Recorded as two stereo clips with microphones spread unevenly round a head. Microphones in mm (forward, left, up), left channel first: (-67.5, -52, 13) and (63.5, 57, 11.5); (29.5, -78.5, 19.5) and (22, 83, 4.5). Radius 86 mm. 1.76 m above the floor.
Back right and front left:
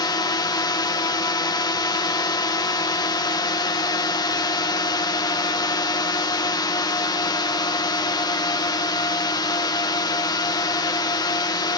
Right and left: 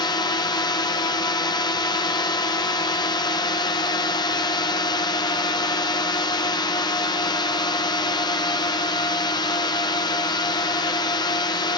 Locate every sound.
0.0 s a drone: 120° right